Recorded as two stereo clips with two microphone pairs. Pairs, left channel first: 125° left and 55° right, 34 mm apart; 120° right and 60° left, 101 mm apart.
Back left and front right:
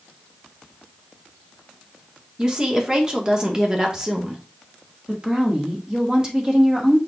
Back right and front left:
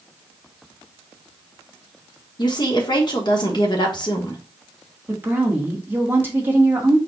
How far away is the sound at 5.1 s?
About 1.2 m.